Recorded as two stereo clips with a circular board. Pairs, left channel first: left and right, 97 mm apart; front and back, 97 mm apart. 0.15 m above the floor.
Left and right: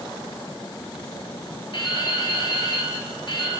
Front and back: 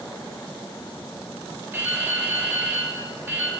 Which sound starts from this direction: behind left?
Dripping, at 1.7 s.